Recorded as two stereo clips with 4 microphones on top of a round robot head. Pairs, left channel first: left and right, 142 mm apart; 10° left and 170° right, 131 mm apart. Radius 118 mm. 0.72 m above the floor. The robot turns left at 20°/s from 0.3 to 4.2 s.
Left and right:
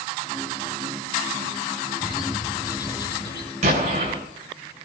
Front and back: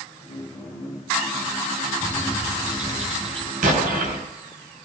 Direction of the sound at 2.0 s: 175° left.